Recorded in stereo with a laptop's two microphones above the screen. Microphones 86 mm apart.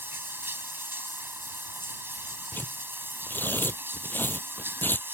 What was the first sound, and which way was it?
Running water, 25° right (ahead or behind).